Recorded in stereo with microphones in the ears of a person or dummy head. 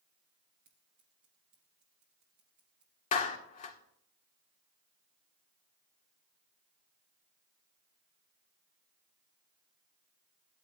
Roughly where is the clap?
Left.